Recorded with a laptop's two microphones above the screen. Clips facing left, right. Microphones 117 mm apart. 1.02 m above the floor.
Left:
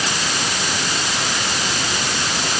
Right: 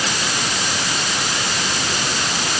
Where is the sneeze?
No sneeze in this recording.